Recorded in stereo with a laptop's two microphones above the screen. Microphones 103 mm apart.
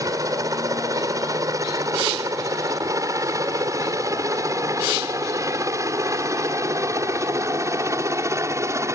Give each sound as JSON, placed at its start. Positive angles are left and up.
{"t": 0.0, "sound": "a helicopter", "side_deg": -35}